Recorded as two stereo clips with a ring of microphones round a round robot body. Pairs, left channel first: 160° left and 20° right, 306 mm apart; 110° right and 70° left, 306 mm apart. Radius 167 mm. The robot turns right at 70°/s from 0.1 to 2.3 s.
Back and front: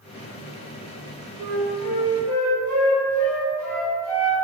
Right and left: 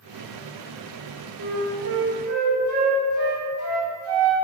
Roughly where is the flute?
Ahead.